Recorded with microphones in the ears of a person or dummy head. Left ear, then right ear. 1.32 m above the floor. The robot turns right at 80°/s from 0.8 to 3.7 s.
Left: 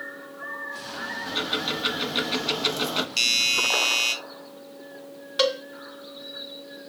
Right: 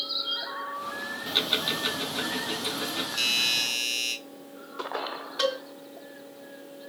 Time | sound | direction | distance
1.3 | ticking | 45° right | 1.1 m
3.2 | a doorbell | 70° left | 1.6 m
5.4 | a cowbell | 35° left (ahead or behind) | 2 m